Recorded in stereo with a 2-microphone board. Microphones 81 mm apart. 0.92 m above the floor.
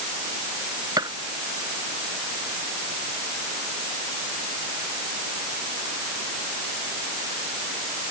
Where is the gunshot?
55° right (ahead or behind).